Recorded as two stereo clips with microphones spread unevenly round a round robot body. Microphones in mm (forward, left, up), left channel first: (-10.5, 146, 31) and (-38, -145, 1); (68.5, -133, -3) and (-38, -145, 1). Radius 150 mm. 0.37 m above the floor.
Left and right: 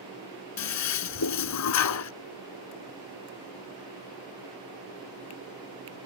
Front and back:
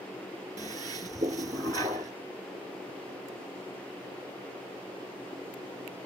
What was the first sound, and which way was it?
A toilet flushing, 120° left.